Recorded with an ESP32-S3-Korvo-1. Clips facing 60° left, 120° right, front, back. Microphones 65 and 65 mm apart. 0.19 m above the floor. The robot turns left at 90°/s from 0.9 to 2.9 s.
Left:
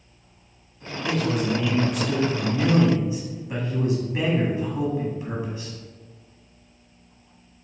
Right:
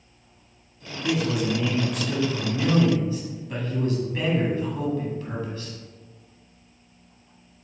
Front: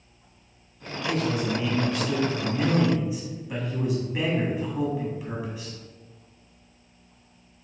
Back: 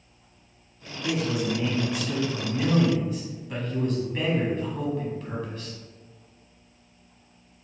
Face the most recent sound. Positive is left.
turn(degrees=60)